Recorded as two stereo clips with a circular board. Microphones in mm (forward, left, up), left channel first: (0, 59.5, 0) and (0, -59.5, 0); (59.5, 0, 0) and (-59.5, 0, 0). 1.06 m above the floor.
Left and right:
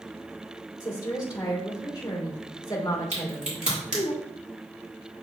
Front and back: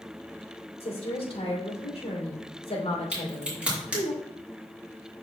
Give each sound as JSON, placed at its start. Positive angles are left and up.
{"t": 0.8, "sound": "a woman speaking", "azimuth_deg": 35, "distance_m": 3.0}
{"t": 3.1, "sound": "a crack", "azimuth_deg": -100, "distance_m": 3.0}